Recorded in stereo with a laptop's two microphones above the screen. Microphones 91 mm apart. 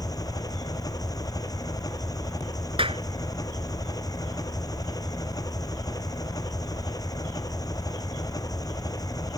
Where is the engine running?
40° left (ahead or behind).